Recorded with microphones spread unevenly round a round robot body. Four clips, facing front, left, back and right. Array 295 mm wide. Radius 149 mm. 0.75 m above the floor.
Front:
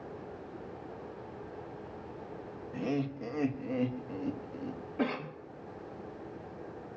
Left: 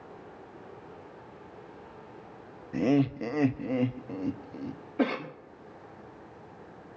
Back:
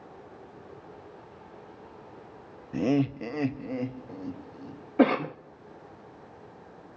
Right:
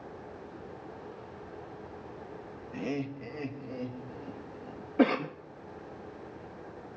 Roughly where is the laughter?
Behind left.